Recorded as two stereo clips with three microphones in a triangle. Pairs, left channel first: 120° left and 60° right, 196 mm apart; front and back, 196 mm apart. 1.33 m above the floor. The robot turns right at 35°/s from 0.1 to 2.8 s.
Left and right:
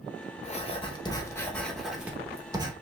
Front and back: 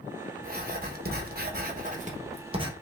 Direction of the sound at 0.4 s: 160° left.